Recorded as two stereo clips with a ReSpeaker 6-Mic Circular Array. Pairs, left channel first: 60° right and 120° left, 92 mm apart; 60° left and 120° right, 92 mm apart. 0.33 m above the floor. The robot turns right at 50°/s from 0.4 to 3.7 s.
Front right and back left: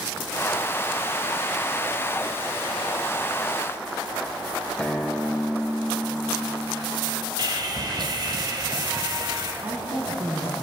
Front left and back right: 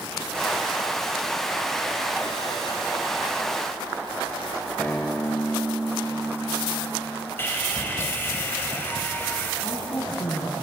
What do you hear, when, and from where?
4.8 s a guitar: 5° left, 1.3 m
7.4 s sawing: 120° left, 1.5 m
9.6 s a woman speaking: 80° left, 2.5 m